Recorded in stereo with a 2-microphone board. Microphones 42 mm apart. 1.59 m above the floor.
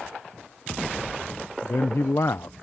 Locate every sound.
1.6 s a man speaking: 80° left